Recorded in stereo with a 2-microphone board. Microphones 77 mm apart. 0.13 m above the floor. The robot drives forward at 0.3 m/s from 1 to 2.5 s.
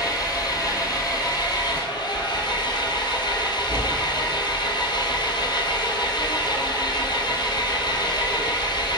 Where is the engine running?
60° left (ahead or behind), 0.9 m; by 9.0 s 75° left (ahead or behind), 0.8 m.